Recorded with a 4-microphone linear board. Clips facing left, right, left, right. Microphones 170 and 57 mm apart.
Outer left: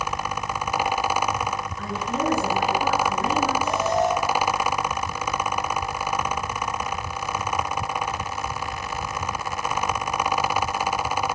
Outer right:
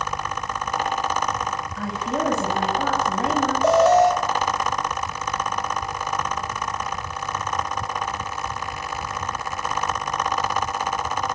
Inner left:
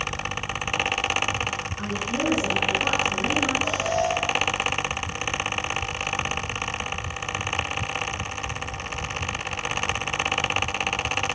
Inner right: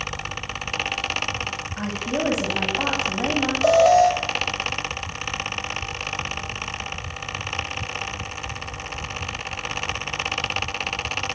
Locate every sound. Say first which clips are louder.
1.8 s a woman speaking: outer right 3 dB, inner right 4 dB; 85° right, 9.5 m
3.6 s an alarm: outer right 8 dB, inner right 10 dB; 85° right, 4.5 m